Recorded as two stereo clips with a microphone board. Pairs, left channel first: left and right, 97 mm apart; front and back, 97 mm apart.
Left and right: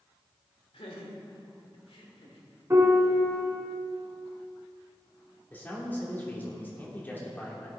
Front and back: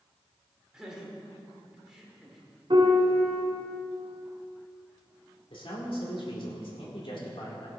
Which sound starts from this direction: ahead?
A man speaking, at 5.5 s.